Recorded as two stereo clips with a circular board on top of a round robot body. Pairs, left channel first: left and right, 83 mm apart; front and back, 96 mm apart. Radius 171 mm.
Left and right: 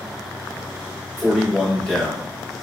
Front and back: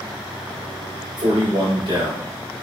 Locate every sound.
1.2 s a man speaking: 175° left, 1.6 m